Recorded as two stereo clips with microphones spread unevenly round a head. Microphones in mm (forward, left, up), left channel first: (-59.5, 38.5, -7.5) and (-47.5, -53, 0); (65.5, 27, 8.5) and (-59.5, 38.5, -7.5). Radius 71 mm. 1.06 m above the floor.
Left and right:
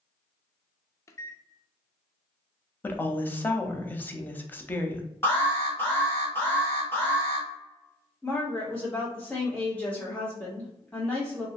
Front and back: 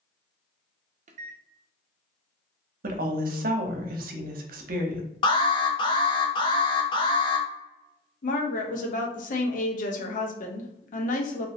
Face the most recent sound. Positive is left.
turn(degrees=15)